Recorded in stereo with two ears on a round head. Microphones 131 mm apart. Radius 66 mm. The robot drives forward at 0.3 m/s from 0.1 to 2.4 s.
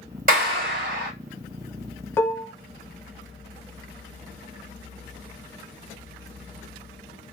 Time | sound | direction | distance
0.3 | a clap | 65° right (ahead or behind) | 2.5 m
2.2 | dishes clattering | 15° left (ahead or behind) | 0.7 m